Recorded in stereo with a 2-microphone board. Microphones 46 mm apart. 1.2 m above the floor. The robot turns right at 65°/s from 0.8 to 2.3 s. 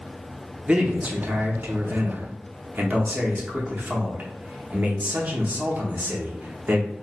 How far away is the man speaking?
About 0.7 m.